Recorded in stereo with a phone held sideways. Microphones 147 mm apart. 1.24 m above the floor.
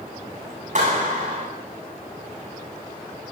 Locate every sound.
0.8 s a clap: 60° right (ahead or behind), 9.5 m